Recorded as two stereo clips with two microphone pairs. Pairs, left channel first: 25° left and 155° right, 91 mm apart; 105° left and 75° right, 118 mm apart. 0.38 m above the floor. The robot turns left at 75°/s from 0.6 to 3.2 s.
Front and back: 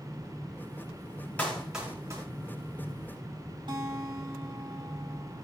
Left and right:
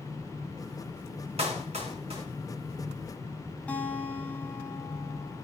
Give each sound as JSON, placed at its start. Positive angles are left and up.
{"t": 1.4, "sound": "a clap", "azimuth_deg": -50, "distance_m": 4.0}
{"t": 3.7, "sound": "a guitar", "azimuth_deg": 180, "distance_m": 2.5}